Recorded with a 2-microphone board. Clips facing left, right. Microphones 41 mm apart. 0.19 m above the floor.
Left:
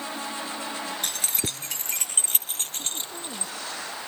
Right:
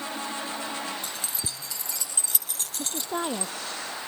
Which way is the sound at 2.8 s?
70° right (ahead or behind).